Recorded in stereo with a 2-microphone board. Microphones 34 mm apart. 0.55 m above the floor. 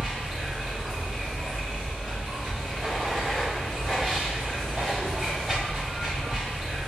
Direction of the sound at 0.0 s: 15° right (ahead or behind).